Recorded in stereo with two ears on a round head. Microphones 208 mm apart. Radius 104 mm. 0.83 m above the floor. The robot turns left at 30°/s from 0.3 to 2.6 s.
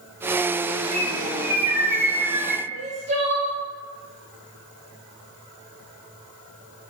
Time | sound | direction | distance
0.9 | a bird | 105° right | 1.8 m
2.7 | crying | 30° right (ahead or behind) | 1.2 m